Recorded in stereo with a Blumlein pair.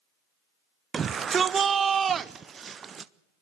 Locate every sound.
0.9 s a shout: 20° right, 0.6 m